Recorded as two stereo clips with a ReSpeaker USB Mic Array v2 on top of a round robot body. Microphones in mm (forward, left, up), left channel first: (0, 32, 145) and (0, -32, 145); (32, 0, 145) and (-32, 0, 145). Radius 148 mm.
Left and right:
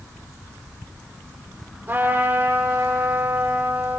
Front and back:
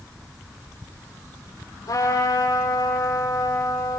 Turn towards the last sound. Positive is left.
turn(degrees=-30)